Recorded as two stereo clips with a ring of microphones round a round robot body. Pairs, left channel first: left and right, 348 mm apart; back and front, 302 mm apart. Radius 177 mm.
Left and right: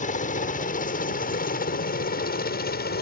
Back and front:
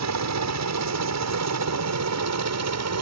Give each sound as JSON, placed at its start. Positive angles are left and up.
{"t": 0.0, "sound": "a helicopter", "azimuth_deg": 25}